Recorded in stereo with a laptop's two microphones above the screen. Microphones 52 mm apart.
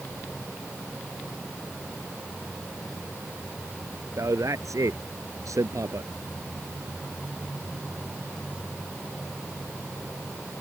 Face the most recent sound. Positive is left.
turn(degrees=-85)